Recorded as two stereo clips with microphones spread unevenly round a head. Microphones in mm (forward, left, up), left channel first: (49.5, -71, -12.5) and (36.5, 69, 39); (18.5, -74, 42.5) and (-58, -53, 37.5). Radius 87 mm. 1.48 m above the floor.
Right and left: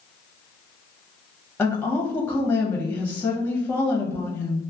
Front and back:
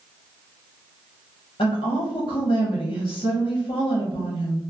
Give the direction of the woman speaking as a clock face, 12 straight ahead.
12 o'clock.